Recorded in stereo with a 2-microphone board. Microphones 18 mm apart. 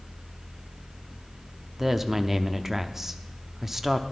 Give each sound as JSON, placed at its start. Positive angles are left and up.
{"t": 1.8, "sound": "a woman speaking", "side_deg": -20, "distance_m": 0.7}